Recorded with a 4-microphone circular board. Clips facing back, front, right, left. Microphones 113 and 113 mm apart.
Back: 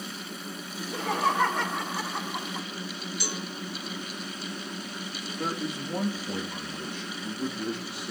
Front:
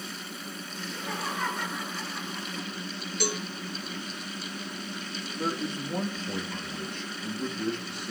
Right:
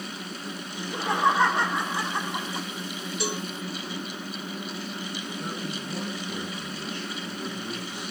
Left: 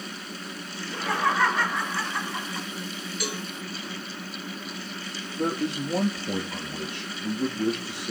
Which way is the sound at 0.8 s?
160° right.